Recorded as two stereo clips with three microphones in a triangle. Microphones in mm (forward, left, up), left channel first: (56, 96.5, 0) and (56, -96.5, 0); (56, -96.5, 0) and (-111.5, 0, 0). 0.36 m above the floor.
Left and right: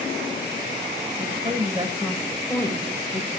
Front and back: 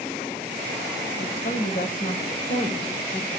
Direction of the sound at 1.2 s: 40° right.